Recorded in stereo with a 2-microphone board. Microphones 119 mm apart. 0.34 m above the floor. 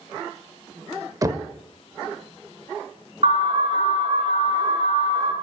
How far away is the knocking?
About 0.6 m.